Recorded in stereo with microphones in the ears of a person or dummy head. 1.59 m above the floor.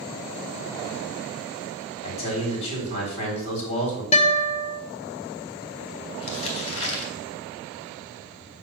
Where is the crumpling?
30° left (ahead or behind), 2.5 m.